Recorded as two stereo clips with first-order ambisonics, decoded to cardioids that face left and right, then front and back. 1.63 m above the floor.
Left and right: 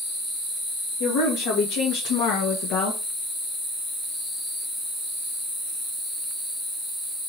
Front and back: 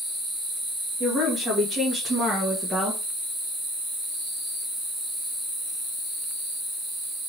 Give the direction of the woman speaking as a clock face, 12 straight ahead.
9 o'clock.